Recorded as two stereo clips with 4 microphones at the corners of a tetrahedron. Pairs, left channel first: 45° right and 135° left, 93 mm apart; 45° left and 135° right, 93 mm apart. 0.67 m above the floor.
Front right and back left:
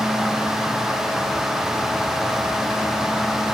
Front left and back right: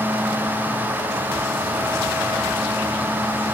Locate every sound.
Only background noise.